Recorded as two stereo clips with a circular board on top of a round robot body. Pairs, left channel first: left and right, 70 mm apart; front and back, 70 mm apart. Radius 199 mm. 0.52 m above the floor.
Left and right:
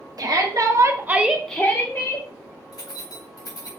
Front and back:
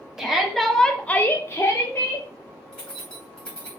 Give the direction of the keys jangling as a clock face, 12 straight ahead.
9 o'clock.